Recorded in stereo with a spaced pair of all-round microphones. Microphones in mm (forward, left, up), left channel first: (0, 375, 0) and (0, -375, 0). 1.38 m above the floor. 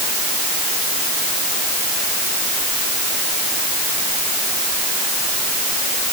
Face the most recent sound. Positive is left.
No sound to turn to.